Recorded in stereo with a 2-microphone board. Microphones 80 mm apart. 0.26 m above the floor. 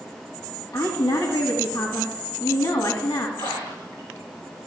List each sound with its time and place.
0.7 s a woman speaking: 55° left (ahead or behind), 1.8 m
3.4 s a splash: 55° left (ahead or behind), 4.5 m